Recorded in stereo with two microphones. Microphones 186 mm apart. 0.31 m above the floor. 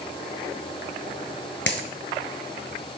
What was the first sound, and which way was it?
A dropped coin, 85° left.